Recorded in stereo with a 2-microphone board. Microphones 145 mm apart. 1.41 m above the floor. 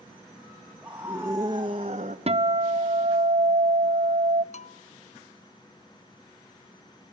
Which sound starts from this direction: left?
A bell, at 4.5 s.